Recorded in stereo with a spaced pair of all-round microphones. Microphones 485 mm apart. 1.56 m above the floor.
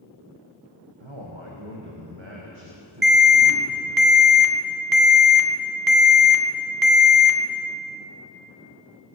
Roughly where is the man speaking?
Right.